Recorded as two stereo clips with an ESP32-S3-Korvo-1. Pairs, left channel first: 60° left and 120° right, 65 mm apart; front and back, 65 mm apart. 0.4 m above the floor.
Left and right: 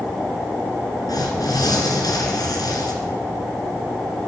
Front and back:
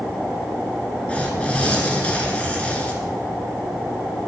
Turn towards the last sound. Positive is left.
turn(degrees=70)